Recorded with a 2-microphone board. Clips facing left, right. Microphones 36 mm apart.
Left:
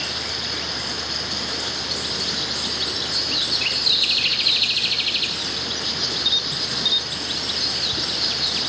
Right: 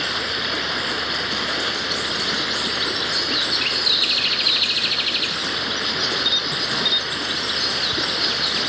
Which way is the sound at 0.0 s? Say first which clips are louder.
Right 4 dB; 30° right (ahead or behind).